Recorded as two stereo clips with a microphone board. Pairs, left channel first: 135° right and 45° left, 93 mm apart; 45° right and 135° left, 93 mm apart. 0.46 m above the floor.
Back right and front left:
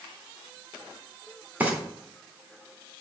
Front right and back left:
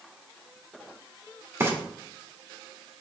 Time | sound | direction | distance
1.6 | frying | 100° left | 1.6 m